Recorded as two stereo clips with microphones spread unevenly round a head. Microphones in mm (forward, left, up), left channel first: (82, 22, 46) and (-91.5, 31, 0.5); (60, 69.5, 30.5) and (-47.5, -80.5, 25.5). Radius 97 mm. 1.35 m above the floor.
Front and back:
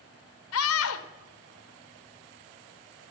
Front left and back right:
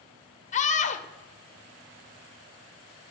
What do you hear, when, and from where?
0.5 s a scream: straight ahead, 1.3 m